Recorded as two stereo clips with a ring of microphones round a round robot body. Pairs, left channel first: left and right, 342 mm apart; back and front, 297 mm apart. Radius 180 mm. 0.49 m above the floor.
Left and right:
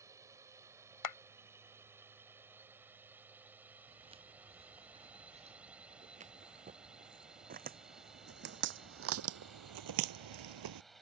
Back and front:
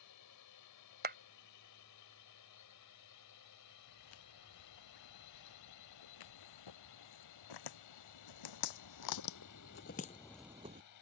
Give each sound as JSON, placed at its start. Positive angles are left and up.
{"t": 0.0, "sound": "a drone", "azimuth_deg": -170}
{"t": 1.0, "sound": "a clap", "azimuth_deg": 60}
{"t": 3.9, "sound": "footsteps", "azimuth_deg": -165}